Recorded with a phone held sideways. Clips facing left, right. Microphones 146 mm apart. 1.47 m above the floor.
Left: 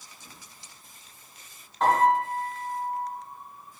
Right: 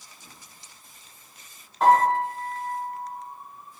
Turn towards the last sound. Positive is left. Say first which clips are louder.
# right 3 dB
turn(degrees=-5)  # may be behind; listen again after turning